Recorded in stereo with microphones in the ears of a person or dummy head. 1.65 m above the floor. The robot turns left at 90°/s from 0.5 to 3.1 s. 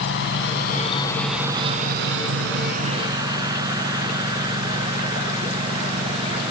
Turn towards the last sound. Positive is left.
turn(degrees=-25)  # may be behind; listen again after turning